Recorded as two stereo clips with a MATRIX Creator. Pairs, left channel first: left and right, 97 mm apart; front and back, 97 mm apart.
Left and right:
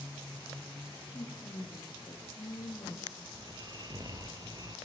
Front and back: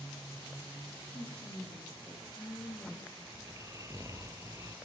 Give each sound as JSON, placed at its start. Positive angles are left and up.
{"t": 1.1, "sound": "a woman speaking", "azimuth_deg": 50, "distance_m": 6.0}
{"t": 3.3, "sound": "snoring", "azimuth_deg": -130, "distance_m": 2.5}